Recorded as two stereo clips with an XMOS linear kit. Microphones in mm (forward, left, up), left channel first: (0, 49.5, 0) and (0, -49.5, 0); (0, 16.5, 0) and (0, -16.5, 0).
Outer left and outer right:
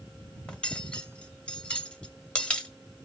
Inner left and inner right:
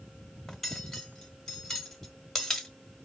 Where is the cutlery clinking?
10° left (ahead or behind), 1.5 m.